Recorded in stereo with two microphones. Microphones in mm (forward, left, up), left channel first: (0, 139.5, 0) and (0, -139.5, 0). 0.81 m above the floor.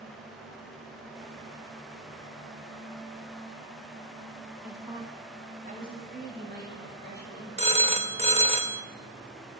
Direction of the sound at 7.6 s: 20° right (ahead or behind).